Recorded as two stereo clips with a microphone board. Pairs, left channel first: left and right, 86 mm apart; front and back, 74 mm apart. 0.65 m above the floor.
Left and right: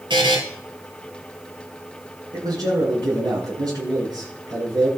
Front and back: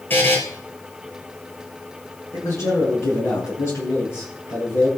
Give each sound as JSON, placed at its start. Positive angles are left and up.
{"t": 0.1, "sound": "a buzzer", "azimuth_deg": -60, "distance_m": 4.5}
{"t": 2.3, "sound": "a man speaking", "azimuth_deg": -50, "distance_m": 9.0}